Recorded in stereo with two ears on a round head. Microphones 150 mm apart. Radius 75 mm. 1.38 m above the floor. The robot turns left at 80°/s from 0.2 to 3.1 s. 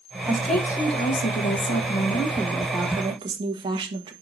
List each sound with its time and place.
0.3 s a woman speaking: 160° right, 1.4 m; by 4.1 s 30° right, 1.4 m